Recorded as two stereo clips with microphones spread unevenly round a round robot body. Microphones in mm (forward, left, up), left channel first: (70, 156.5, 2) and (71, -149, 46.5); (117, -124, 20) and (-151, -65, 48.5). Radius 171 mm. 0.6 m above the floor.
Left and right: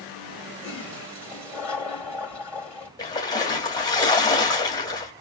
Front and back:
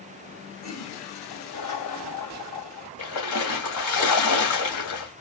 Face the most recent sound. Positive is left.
turn(degrees=15)